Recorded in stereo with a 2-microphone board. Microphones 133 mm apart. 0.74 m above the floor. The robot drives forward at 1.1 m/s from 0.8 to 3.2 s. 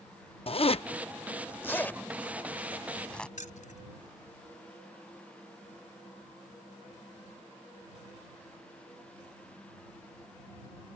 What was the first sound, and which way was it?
A zipper, 45° left (ahead or behind).